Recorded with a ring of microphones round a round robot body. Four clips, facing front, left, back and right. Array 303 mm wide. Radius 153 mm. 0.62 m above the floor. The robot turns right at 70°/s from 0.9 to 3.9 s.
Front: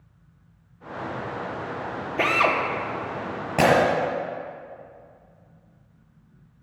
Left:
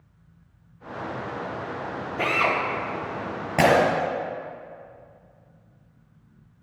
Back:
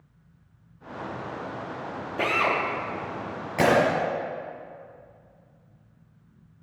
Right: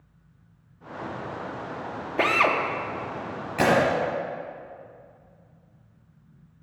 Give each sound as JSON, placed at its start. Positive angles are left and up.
{"t": 2.2, "sound": "a drill", "azimuth_deg": -70, "distance_m": 1.1}
{"t": 3.6, "sound": "breaking glass", "azimuth_deg": 45, "distance_m": 4.0}